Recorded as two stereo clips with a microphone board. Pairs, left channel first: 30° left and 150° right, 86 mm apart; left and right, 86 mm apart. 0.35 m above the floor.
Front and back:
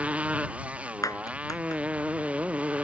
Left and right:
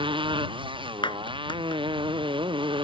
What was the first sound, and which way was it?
A motorcycle, 75° right.